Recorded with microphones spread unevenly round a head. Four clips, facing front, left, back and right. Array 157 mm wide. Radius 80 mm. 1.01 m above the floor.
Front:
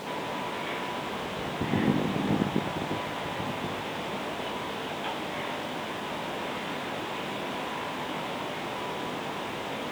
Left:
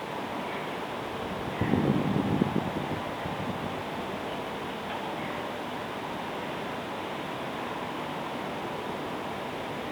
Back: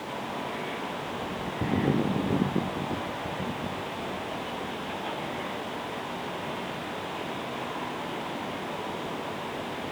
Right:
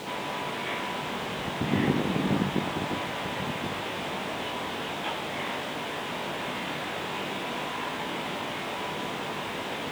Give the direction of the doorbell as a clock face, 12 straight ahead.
I don't hear a doorbell.